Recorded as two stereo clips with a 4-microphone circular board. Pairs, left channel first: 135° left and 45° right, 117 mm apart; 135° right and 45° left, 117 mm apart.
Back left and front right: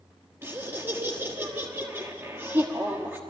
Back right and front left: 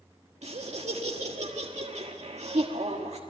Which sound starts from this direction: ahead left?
Laughter, at 0.4 s.